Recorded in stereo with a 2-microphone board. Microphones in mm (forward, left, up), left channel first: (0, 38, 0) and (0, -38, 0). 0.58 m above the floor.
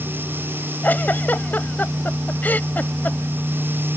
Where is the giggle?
25° left (ahead or behind).